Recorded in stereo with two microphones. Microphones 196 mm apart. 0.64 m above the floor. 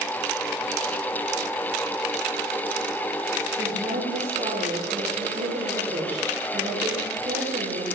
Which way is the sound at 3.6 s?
50° right (ahead or behind).